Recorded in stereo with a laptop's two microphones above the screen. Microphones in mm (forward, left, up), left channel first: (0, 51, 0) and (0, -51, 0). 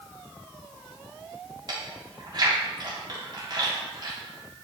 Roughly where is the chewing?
Right.